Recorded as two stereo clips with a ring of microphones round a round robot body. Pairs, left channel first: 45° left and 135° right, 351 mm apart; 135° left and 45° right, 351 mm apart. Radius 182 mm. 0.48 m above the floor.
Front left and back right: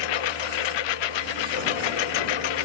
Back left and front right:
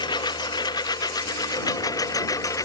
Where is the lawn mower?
55° left.